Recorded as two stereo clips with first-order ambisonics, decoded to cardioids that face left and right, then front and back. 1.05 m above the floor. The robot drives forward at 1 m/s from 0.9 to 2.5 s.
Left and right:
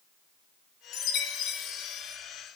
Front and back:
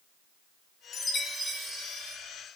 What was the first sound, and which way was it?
A chime, 60° left.